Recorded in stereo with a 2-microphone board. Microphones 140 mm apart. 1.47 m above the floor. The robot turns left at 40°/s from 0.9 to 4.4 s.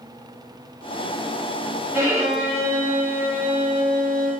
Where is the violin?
155° right, 1.4 m; by 4.3 s 110° left, 1.4 m.